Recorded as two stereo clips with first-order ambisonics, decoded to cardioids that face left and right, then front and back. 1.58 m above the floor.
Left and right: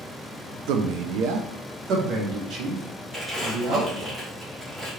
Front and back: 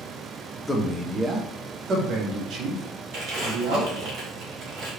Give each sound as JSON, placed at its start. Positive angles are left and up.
{"t": 0.7, "sound": "a man speaking", "azimuth_deg": -80, "distance_m": 0.6}
{"t": 3.1, "sound": "crumpling", "azimuth_deg": -175, "distance_m": 1.8}